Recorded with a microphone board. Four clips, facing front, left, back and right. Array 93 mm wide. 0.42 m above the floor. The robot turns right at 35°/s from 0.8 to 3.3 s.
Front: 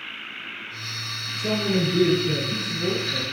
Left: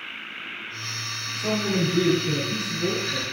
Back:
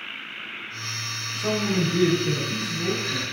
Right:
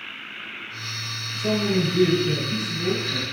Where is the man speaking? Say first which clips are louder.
Right 2 dB, front 1 dB; 150° left, 4 m; by 3.2 s 145° right, 4 m.